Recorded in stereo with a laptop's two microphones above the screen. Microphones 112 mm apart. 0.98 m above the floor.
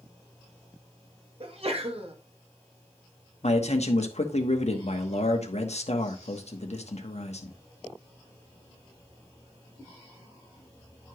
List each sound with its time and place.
1.4 s a sneeze: 60° right (ahead or behind), 1.6 m
3.4 s a man speaking: 75° left (ahead or behind), 1.2 m